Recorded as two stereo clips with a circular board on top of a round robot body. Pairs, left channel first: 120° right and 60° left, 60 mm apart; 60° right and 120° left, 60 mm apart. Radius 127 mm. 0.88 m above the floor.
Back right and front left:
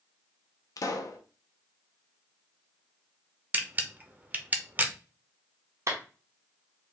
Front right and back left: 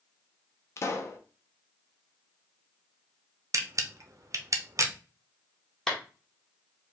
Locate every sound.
0.8 s a pop: 100° right, 0.8 m
3.5 s a camera shutter: 120° left, 0.8 m
5.9 s a clap: 20° left, 1.2 m